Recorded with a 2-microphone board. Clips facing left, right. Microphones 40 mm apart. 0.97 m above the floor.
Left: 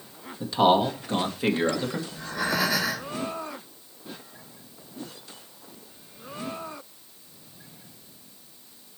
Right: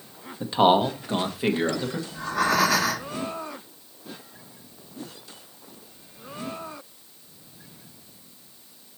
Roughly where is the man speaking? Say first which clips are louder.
Right 1 dB; right.